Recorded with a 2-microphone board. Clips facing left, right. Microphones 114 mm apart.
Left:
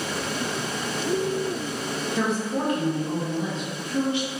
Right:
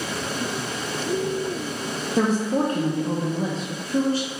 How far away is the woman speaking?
About 0.7 m.